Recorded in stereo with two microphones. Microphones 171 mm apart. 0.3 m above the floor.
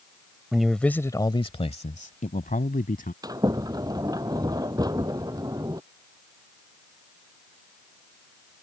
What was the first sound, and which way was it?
A man speaking, 5° right (ahead or behind).